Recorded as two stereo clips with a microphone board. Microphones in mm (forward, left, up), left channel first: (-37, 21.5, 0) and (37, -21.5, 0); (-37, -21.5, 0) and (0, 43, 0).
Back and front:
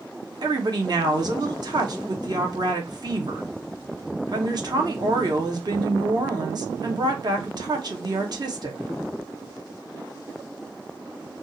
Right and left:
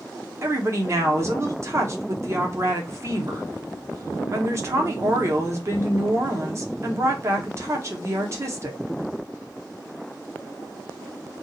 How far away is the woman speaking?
About 0.9 m.